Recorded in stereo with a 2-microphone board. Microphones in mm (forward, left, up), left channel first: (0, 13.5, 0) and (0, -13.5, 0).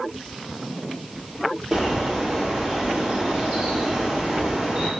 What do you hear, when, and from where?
1.7 s a bird: 30° right (ahead or behind), 2.0 m